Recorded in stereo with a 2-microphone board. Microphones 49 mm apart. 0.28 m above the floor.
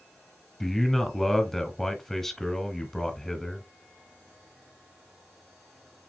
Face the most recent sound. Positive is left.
turn(degrees=5)  # may be behind; listen again after turning